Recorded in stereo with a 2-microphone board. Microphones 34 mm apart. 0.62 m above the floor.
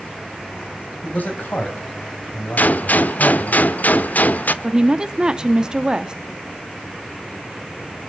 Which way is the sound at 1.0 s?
55° left (ahead or behind).